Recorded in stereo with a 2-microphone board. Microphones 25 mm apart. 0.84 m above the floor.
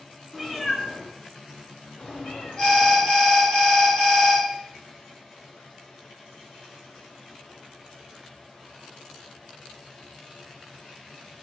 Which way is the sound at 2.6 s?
40° left (ahead or behind).